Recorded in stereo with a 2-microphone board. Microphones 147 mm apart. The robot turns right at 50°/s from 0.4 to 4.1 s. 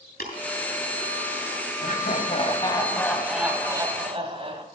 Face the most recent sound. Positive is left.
turn(degrees=-140)